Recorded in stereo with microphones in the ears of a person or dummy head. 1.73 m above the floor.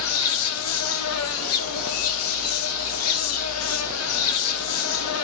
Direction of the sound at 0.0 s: 90° left.